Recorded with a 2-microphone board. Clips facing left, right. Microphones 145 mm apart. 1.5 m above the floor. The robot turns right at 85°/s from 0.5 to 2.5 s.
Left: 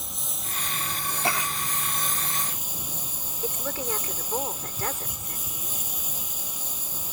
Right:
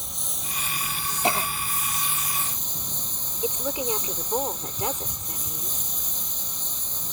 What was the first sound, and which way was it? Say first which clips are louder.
A lawn mower: even; straight ahead.